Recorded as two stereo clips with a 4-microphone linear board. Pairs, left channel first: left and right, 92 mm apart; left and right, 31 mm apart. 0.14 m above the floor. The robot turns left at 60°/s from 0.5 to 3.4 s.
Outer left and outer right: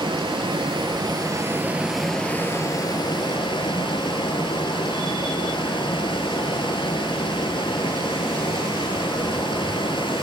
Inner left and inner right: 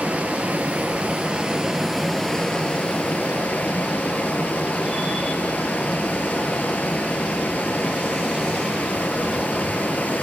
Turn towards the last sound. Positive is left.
turn(degrees=100)